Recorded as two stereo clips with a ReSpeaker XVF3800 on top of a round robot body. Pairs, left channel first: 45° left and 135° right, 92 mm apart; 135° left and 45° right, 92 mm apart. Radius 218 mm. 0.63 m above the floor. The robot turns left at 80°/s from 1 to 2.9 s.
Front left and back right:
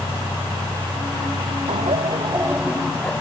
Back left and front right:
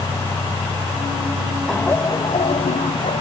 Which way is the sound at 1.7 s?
140° right.